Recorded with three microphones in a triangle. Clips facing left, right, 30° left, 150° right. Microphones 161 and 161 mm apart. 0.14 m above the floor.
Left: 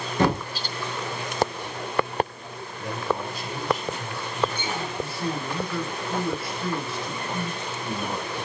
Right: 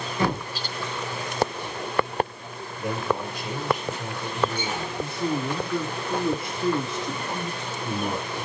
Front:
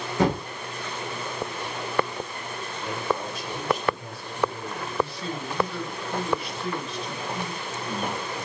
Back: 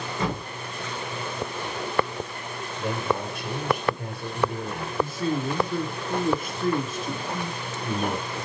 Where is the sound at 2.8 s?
160° right, 3.5 m.